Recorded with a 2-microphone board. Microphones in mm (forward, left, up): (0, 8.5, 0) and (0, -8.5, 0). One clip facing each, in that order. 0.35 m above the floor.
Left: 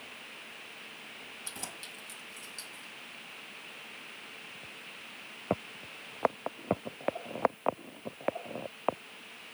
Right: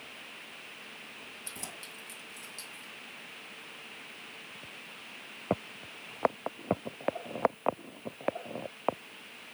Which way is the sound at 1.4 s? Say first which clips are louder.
Left 1 dB; centre (ahead or behind).